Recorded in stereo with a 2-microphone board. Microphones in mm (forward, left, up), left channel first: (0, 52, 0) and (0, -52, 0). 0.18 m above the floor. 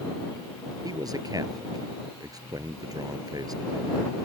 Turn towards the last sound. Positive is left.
turn(degrees=-40)  # may be behind; listen again after turning